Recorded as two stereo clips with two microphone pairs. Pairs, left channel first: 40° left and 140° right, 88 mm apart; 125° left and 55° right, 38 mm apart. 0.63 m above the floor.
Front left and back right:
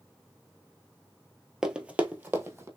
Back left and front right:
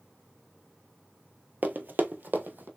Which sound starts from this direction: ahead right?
Running footsteps, at 1.6 s.